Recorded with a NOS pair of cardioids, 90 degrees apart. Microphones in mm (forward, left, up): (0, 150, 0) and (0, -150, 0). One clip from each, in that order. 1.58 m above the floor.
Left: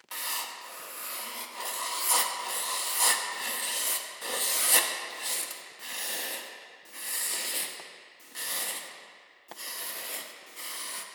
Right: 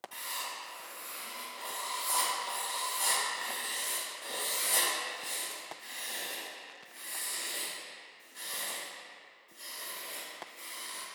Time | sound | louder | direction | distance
0.1 | writing | left 5 dB | 50° left | 0.5 m